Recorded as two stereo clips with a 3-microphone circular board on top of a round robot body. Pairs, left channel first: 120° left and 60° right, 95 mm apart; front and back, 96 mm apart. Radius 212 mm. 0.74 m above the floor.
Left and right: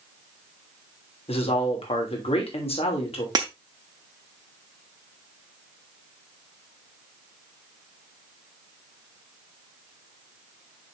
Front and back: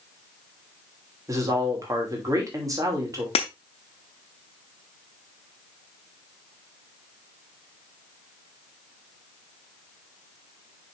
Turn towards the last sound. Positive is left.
turn(degrees=-15)